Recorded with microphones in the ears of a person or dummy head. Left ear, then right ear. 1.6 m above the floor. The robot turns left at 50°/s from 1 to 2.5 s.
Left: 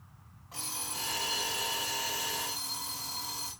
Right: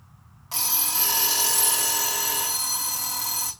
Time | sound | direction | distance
0.5 | an alarm clock | 70° right | 2.5 m